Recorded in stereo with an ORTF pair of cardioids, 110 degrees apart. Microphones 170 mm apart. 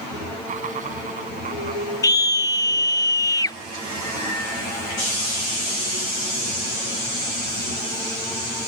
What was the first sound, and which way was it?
Laughter, 45° right.